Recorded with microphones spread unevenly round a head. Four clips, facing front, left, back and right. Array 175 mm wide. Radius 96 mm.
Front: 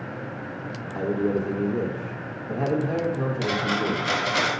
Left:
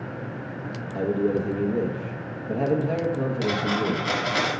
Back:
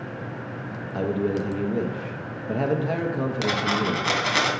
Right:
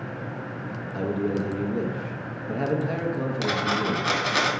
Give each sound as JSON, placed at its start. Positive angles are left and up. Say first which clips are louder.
{"t": 0.9, "sound": "a man speaking", "louder": "left 3 dB, even", "azimuth_deg": 165, "distance_m": 0.9}
{"t": 3.4, "sound": "a dropped coin", "louder": "even, back 1 dB", "azimuth_deg": -130, "distance_m": 2.0}